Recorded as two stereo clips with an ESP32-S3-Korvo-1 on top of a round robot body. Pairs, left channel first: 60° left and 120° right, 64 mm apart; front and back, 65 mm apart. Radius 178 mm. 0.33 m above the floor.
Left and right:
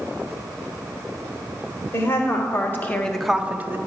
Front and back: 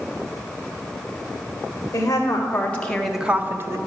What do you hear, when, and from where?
1.9 s a woman speaking: 40° left, 1.9 m; by 3.8 s 160° right, 1.3 m